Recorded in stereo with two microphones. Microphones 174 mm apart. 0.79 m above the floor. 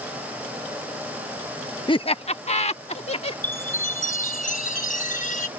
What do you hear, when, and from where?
1.9 s laughter: 30° left (ahead or behind); by 3.3 s 35° left (ahead or behind)
3.4 s a chime: 50° left (ahead or behind)